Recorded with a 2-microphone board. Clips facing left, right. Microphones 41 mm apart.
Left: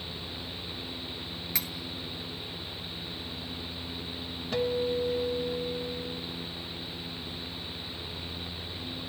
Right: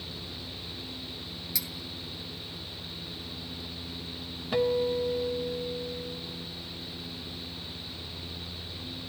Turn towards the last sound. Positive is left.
turn(degrees=-10)  # may be behind; listen again after turning